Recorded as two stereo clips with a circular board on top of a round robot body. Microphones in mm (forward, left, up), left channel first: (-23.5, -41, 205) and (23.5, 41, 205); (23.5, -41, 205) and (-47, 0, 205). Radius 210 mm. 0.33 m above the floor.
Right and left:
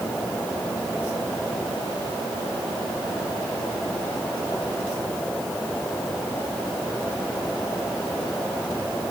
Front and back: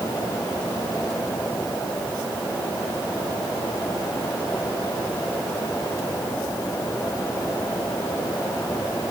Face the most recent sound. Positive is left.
No sound to turn to.